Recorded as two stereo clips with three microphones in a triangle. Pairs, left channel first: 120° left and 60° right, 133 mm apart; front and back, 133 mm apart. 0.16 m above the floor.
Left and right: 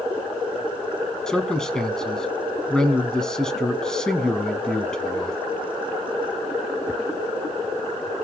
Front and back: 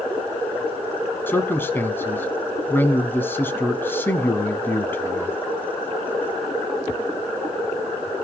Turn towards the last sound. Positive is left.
turn(degrees=45)